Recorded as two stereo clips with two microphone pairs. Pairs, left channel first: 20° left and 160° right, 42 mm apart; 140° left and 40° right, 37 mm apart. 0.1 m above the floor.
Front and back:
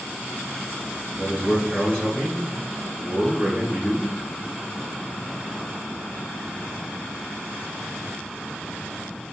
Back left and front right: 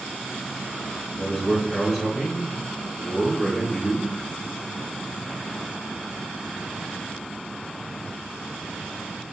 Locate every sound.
1.1 s a man speaking: 125° right, 1.8 m